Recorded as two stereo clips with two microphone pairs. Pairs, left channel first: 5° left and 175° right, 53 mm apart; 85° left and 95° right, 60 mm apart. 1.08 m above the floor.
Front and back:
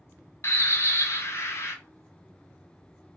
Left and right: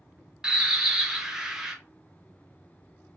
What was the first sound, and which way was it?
A bird, 15° right.